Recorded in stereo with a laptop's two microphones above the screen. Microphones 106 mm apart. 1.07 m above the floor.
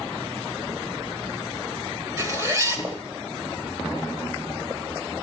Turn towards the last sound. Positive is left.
turn(degrees=-30)  # may be behind; listen again after turning